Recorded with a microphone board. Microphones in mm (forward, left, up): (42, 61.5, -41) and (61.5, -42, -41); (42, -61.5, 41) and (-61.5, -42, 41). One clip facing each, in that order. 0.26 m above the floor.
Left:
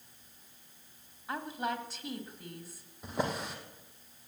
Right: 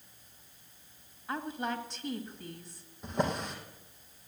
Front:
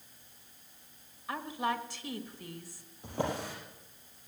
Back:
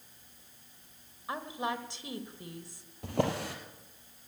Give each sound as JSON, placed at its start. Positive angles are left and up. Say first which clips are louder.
{"t": 1.3, "sound": "a woman speaking", "louder": "even, front 1 dB", "azimuth_deg": 175, "distance_m": 1.3}
{"t": 3.0, "sound": "a drawer", "louder": "right 2 dB, back 3 dB", "azimuth_deg": -175, "distance_m": 2.5}